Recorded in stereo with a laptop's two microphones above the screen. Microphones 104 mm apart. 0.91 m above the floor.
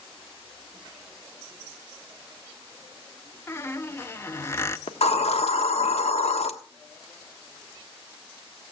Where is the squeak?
25° left (ahead or behind), 0.8 m.